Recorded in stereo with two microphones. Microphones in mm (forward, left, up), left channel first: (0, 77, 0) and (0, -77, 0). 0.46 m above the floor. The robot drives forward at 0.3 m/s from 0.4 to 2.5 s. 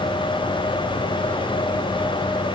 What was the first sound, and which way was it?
Only background noise.